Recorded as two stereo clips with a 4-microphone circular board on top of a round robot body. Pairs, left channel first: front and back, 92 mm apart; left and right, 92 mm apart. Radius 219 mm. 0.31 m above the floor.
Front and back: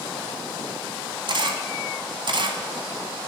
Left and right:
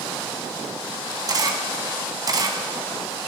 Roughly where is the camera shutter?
Behind right.